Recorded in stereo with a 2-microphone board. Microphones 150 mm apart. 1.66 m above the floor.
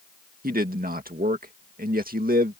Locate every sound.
0.4 s a man speaking: 75° right (ahead or behind)